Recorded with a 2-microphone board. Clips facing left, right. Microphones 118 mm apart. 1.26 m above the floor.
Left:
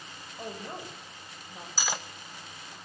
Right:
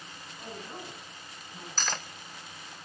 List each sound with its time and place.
0.4 s a woman speaking: 50° left (ahead or behind), 6.5 m
1.8 s cutlery clinking: 10° left (ahead or behind), 0.7 m